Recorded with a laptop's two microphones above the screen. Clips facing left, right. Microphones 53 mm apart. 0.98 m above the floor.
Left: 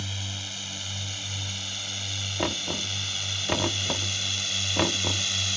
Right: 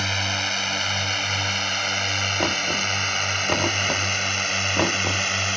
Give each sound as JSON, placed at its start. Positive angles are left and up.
{"t": 0.0, "sound": "a drone", "side_deg": -75}
{"t": 2.4, "sound": "knocking", "side_deg": -10}